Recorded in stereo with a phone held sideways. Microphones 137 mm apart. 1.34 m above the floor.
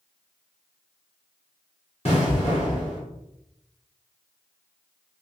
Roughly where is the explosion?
Left.